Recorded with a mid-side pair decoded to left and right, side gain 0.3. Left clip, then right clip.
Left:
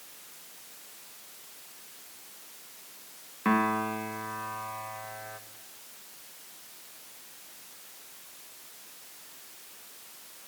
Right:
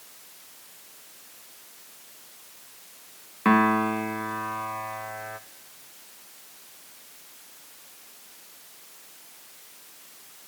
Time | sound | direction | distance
3.5 | a piano | 60° right | 1.4 m